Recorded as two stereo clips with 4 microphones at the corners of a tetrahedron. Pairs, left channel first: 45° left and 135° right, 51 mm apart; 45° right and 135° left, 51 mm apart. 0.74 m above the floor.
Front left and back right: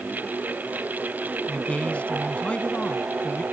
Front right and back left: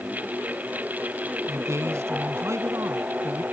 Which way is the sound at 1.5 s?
110° left.